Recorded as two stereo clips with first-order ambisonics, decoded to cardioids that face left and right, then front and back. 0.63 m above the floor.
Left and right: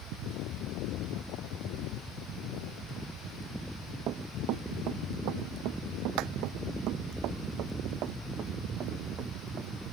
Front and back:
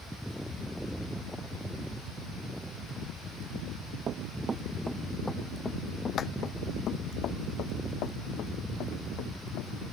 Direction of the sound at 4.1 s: 125° right.